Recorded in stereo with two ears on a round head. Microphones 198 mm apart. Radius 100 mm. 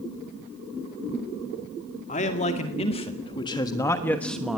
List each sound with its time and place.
2.1 s a man speaking: 35° left (ahead or behind), 2.5 m; by 4.6 s 5° right (ahead or behind), 1.1 m